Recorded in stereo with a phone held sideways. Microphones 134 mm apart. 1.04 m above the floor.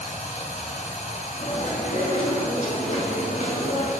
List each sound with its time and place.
0.0 s running water: 55° left (ahead or behind), 1.9 m
1.4 s chewing: 60° left (ahead or behind), 2.5 m